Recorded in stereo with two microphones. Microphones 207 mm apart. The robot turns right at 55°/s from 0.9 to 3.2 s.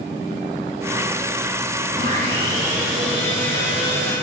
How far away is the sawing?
About 2 m.